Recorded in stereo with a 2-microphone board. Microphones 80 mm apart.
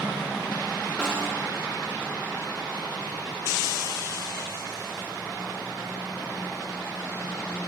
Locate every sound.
1.0 s a snare drum: 10° left (ahead or behind), 0.7 m